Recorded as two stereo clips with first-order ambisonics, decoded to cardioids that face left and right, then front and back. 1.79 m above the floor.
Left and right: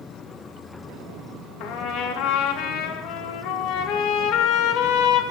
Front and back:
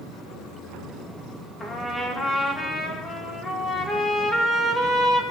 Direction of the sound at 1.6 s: 75° left.